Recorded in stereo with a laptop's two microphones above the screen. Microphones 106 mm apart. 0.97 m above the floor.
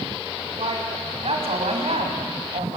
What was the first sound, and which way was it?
A woman speaking, 65° right (ahead or behind).